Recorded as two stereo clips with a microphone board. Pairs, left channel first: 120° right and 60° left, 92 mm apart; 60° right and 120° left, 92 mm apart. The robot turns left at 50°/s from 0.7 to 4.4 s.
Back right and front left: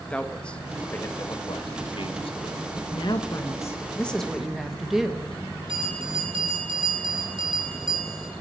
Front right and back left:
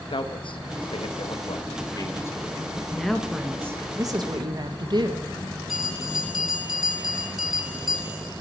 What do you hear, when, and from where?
0.1 s a man speaking: 40° right, 1.2 m; by 2.6 s 140° right, 1.2 m
2.9 s a woman speaking: 140° right, 1.3 m; by 5.2 s 145° left, 1.3 m
5.7 s a bell: 30° left, 7 m